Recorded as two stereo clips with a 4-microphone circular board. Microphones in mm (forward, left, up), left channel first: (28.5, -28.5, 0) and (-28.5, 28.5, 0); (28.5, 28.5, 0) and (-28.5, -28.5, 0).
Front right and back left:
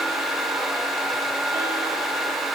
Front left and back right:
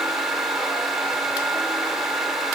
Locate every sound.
Only background noise.